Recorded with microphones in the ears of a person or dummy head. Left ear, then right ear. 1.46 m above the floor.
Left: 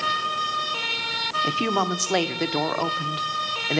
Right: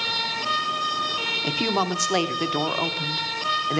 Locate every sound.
1.4 s a woman speaking: 5° left (ahead or behind), 1.1 m